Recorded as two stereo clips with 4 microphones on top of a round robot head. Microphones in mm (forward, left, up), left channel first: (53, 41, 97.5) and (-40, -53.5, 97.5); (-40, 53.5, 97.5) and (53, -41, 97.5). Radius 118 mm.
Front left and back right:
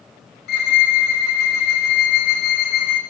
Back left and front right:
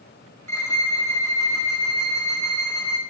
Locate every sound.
0.5 s a violin: 60° left, 1.4 m